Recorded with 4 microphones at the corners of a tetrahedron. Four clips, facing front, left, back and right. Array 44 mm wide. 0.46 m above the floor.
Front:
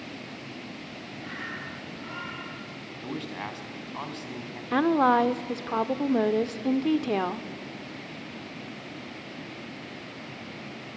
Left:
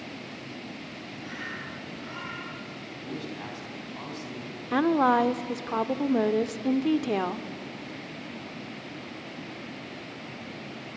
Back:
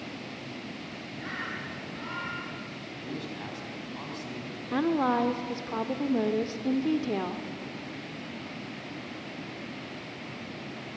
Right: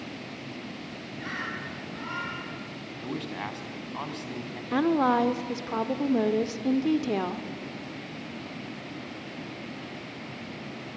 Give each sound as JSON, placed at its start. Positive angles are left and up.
{"t": 1.2, "sound": "a bird", "azimuth_deg": -115, "distance_m": 5.0}
{"t": 3.0, "sound": "a man speaking", "azimuth_deg": -50, "distance_m": 3.0}
{"t": 4.7, "sound": "a woman speaking", "azimuth_deg": 25, "distance_m": 0.9}